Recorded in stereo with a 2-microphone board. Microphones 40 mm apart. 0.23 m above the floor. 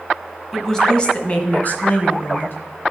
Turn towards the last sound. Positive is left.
turn(degrees=65)  # may be behind; listen again after turning